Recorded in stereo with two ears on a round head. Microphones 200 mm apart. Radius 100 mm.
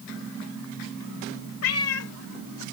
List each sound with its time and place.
1.6 s a cat meowing: 65° left (ahead or behind); by 2.6 s 85° left